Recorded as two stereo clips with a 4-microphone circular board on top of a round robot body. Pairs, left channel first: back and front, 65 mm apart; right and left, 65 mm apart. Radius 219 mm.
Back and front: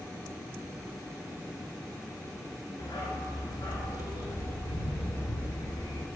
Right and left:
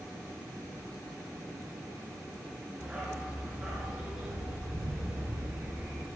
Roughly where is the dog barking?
Behind.